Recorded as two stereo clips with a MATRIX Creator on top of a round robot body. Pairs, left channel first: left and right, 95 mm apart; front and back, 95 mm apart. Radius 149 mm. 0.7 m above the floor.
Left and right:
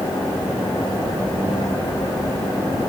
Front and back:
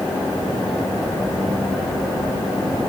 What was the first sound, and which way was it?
Only background noise.